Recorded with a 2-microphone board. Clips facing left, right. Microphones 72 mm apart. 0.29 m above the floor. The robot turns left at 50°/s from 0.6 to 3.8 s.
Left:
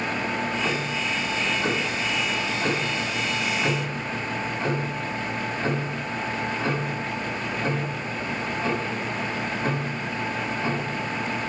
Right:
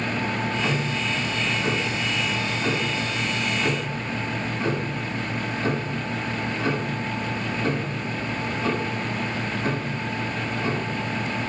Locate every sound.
0.3 s ticking: 165° right, 1.7 m; by 11.5 s 35° left, 1.7 m